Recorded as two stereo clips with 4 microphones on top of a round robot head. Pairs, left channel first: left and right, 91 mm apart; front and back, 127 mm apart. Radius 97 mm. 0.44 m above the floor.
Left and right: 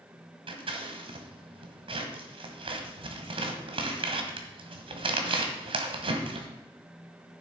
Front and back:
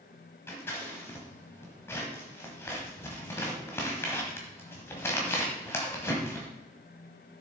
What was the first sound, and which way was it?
Scissors, 70° right.